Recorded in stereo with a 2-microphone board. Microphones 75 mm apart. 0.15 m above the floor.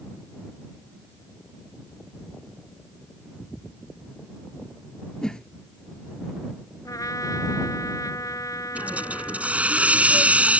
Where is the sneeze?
No sneeze in this recording.